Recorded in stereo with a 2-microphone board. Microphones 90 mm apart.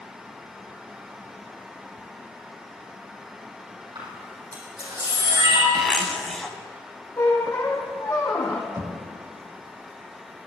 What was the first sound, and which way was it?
A camera shutter, 55° right (ahead or behind).